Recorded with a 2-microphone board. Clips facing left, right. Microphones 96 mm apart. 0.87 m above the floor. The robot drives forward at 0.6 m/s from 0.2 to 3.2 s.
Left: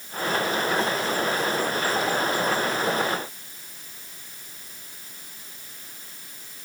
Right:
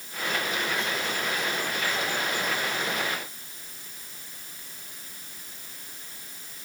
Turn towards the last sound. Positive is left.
No sound to turn to.